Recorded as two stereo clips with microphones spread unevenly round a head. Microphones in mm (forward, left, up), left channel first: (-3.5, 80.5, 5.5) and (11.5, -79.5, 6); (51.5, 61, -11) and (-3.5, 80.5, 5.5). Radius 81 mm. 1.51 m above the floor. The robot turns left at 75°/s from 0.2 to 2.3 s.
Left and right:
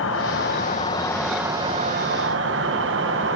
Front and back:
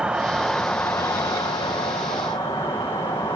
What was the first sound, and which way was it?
An insect, 85° left.